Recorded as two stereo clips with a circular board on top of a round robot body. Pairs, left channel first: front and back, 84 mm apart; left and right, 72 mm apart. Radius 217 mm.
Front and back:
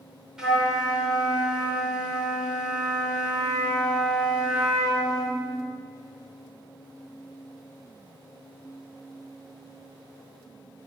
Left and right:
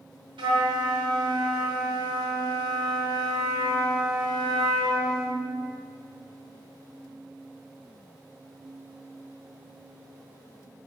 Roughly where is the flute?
Right.